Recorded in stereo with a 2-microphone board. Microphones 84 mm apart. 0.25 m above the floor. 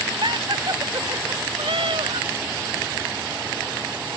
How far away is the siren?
No siren in this recording.